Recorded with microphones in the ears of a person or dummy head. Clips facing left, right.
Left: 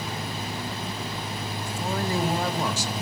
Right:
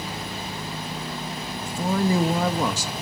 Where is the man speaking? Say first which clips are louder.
Right 6 dB; 85° right, 1.2 m.